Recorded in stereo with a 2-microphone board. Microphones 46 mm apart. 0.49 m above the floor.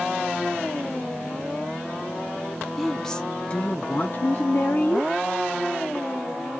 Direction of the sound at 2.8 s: Centre (ahead or behind).